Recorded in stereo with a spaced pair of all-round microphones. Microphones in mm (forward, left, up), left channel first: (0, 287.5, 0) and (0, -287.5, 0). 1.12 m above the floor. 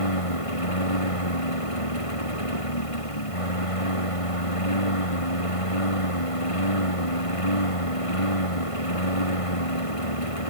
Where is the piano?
No piano in this recording.